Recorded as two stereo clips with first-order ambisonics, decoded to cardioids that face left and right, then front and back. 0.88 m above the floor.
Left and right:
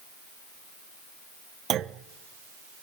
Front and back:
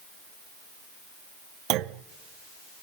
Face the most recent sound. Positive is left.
turn(degrees=-145)